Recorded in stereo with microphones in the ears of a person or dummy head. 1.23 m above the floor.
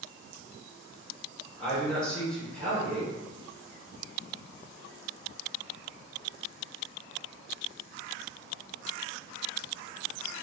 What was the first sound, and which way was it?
A man speaking, centre (ahead or behind).